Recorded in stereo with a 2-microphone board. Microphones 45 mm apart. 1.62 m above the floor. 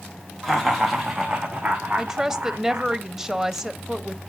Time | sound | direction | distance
0.4 | laughter | 5° left (ahead or behind) | 1.8 m
2.0 | a woman speaking | 10° right (ahead or behind) | 0.7 m